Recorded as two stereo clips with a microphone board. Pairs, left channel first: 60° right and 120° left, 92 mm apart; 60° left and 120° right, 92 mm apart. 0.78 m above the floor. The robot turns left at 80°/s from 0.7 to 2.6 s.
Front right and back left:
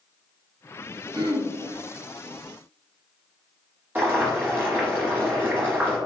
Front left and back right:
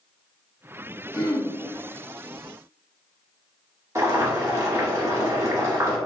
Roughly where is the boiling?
Behind.